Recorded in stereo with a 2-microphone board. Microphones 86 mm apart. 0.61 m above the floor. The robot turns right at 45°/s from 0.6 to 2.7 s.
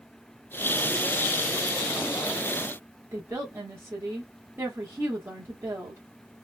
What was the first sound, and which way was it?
A woman speaking, 30° right (ahead or behind).